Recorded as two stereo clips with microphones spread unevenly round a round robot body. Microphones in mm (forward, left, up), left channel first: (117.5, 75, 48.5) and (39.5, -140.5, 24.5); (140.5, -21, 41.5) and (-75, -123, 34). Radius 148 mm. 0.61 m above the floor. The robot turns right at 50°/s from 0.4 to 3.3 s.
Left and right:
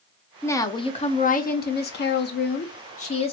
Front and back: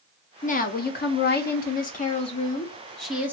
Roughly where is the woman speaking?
Ahead.